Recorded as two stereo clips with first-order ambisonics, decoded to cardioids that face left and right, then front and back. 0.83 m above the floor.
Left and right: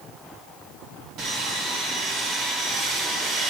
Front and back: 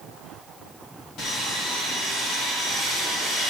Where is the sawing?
50° right, 1.9 m.